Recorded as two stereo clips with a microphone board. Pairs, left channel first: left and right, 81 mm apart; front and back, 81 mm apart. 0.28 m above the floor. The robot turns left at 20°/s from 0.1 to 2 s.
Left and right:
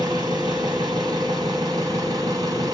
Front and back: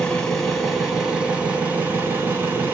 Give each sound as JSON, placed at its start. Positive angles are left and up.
{"t": 0.0, "sound": "an engine running", "azimuth_deg": -80, "distance_m": 1.1}